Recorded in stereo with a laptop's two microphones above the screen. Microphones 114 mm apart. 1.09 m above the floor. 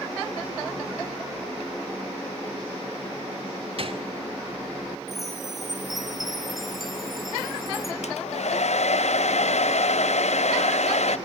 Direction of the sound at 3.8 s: 55° right (ahead or behind).